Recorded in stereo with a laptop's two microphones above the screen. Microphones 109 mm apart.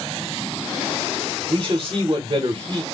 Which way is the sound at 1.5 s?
45° right (ahead or behind).